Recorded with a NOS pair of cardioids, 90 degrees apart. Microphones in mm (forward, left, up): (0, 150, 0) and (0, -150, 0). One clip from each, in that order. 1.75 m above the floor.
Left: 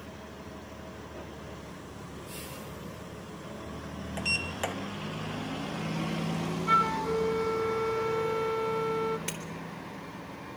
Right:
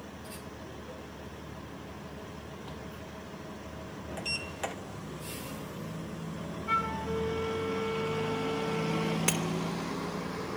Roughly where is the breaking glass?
Ahead right.